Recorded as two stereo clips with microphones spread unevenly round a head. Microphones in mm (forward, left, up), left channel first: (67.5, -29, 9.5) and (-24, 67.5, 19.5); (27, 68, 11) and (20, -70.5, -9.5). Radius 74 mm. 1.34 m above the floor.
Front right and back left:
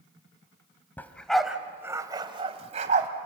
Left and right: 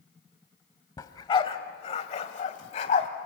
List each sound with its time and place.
1.0 s a dog barking: 35° left, 1.9 m; by 3.1 s 120° left, 2 m